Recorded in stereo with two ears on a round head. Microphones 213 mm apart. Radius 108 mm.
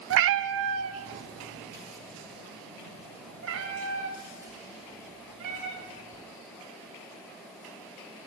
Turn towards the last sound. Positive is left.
turn(degrees=-60)  # may be behind; listen again after turning